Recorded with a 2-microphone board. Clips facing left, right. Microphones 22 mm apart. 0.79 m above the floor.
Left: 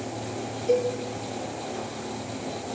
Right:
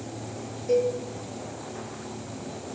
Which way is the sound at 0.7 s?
55° left (ahead or behind).